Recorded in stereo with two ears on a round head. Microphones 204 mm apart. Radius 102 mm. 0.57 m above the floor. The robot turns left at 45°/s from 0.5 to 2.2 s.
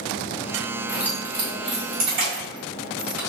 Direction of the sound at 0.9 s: Centre (ahead or behind).